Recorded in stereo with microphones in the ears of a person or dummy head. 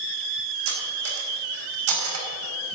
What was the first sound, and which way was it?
Cutlery clinking, 80° right.